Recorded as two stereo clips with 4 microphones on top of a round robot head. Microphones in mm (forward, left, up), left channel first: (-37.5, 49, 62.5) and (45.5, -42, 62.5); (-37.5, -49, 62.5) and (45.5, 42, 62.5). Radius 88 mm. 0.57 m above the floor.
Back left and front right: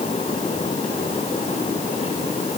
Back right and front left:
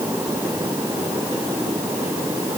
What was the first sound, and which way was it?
Only background noise.